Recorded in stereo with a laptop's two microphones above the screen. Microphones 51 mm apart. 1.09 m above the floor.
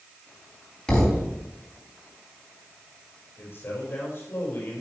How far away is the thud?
About 3 m.